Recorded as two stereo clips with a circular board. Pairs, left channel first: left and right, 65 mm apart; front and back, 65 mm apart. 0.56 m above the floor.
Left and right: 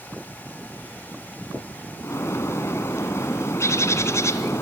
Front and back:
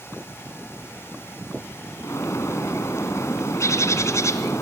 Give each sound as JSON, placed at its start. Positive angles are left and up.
{"t": 2.0, "sound": "a bird", "azimuth_deg": 45, "distance_m": 2.5}